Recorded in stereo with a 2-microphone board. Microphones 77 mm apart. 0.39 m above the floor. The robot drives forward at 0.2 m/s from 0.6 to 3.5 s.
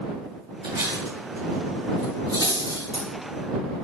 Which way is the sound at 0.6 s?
80° right.